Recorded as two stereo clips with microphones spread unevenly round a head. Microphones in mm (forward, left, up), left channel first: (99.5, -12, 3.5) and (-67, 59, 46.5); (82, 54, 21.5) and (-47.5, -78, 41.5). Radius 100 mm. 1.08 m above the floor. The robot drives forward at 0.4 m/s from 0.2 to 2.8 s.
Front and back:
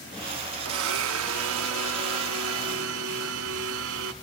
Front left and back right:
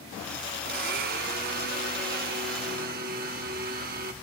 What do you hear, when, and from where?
0.7 s a blender: straight behind, 0.7 m